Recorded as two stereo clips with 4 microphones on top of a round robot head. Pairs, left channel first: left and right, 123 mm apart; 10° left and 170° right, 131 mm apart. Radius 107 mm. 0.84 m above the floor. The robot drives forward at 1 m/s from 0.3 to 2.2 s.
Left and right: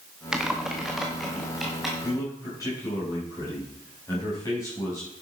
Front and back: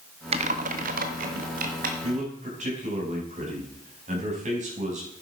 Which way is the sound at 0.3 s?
175° right.